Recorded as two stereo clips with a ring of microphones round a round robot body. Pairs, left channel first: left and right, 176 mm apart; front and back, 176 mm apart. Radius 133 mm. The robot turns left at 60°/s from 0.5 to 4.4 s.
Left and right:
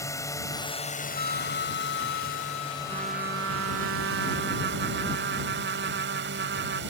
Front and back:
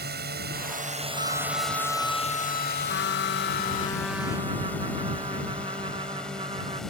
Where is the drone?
160° left; by 6.9 s 90° right.